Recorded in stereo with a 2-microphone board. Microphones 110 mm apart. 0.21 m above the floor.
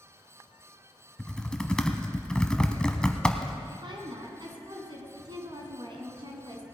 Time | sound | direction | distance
1.2 | typing on a keyboard | 10° left (ahead or behind) | 0.9 m
3.7 | a woman speaking | 50° right (ahead or behind) | 2.5 m